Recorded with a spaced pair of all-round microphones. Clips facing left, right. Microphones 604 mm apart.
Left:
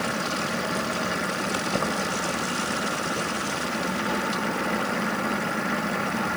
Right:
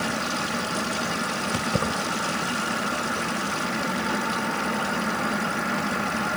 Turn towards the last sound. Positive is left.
turn(degrees=-50)  # may be behind; listen again after turning